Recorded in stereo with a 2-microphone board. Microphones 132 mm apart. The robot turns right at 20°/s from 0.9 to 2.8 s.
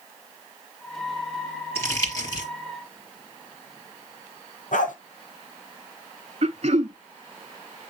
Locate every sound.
1.8 s crumpling: 20° left (ahead or behind), 3.5 m; by 2.5 s 30° left (ahead or behind), 3.5 m
4.7 s a dog barking: 75° left (ahead or behind), 1.5 m
6.4 s throat clearing: 55° right (ahead or behind), 0.6 m